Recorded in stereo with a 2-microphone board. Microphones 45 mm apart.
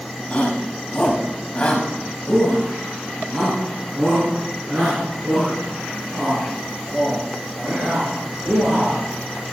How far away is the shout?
About 2 m.